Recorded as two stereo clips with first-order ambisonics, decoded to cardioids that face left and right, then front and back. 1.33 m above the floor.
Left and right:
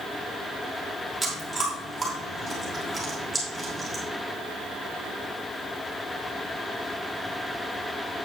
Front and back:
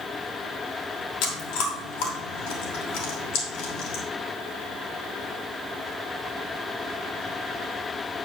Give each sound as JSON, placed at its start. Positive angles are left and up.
{"t": 1.2, "sound": "chewing", "azimuth_deg": 0, "distance_m": 3.0}